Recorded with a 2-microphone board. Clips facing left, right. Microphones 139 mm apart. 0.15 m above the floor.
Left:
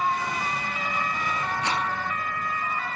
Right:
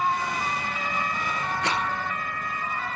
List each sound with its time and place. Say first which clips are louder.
1.6 s a rattle: right 1 dB; 70° right (ahead or behind), 1.1 m